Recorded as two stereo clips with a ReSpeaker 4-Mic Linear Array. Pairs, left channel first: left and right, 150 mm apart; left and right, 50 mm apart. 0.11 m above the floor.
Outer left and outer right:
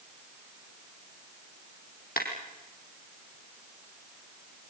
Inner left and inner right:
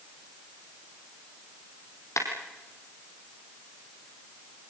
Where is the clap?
70° left (ahead or behind), 3.5 m.